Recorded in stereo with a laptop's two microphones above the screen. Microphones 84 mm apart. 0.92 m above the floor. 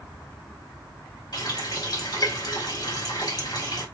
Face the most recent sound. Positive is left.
turn(degrees=60)  # may be behind; listen again after turning